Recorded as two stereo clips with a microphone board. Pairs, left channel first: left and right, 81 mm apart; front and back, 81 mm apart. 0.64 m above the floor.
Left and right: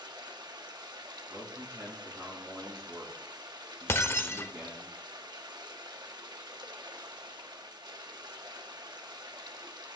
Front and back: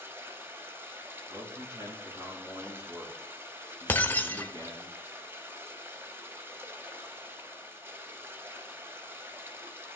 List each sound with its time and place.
0.0 s running water: 120° right, 1.1 m
1.3 s a man speaking: 145° right, 5 m
3.9 s breaking glass: 50° left, 0.7 m